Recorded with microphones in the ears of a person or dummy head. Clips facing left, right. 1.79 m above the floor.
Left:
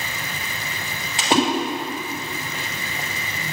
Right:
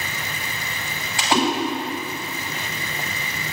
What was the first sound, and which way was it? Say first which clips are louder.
A splash: left 2 dB; 20° left (ahead or behind).